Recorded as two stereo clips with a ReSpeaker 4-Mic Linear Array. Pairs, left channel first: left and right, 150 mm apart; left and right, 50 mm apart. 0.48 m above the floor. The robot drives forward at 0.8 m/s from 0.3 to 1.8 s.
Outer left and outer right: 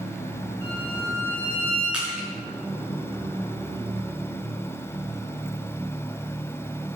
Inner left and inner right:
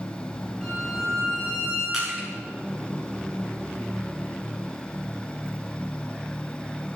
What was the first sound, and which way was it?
A violin, 10° left (ahead or behind).